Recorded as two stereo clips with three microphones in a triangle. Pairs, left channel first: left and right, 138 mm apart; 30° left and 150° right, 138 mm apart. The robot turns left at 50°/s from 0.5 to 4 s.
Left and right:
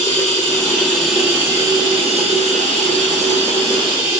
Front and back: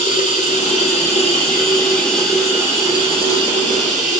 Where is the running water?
30° left, 1.3 m; by 4.2 s 145° right, 1.3 m.